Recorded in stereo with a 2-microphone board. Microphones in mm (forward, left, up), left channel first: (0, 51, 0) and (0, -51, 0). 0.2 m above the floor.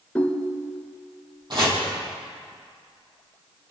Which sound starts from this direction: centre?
A ringtone, at 0.1 s.